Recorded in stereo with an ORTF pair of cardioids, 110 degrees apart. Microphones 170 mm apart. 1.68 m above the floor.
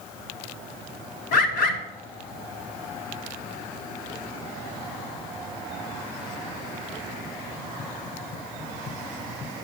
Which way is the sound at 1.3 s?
70° left.